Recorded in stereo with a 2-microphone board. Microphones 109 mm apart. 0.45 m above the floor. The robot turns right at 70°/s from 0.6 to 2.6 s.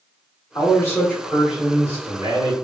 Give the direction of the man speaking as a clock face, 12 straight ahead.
8 o'clock.